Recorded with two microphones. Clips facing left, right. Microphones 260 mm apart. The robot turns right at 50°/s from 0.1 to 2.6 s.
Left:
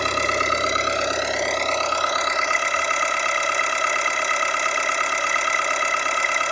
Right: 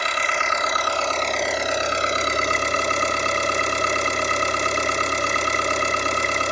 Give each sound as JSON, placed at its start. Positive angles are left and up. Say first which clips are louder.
{"t": 0.0, "sound": "an engine running", "louder": "left 4 dB", "azimuth_deg": 110, "distance_m": 1.2}